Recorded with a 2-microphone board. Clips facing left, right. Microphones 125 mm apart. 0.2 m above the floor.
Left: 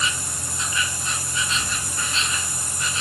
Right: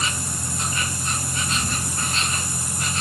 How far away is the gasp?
I don't hear a gasp.